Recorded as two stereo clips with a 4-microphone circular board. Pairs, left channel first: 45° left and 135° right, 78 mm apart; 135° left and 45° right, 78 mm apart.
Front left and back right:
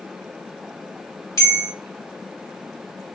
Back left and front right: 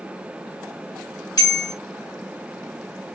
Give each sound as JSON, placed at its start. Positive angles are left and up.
{"t": 1.4, "sound": "a bell", "azimuth_deg": 95, "distance_m": 1.2}